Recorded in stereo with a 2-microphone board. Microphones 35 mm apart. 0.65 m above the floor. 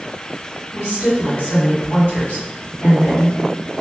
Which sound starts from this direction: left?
A woman speaking, at 0.7 s.